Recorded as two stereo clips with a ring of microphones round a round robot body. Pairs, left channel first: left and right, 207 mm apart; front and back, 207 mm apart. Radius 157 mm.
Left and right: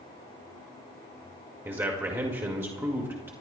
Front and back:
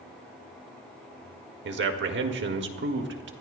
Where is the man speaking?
170° right, 1.8 m.